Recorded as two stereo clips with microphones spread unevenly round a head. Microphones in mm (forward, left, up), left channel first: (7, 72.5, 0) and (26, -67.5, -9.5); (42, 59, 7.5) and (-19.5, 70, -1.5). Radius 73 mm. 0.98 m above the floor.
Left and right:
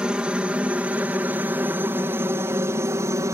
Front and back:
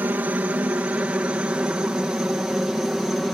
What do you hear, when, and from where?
0.0 s a helicopter: 160° right; by 3.4 s 115° right